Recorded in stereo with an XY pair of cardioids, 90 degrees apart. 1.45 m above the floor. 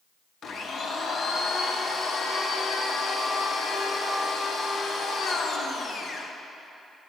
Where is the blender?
55° left, 0.7 m.